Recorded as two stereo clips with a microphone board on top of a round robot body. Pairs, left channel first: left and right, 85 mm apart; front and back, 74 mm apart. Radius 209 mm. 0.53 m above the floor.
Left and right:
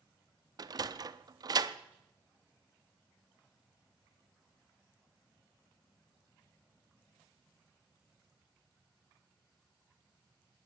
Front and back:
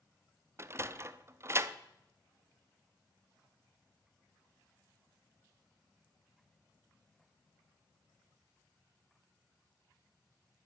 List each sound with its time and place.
0.6 s a sliding door: 125° right, 0.8 m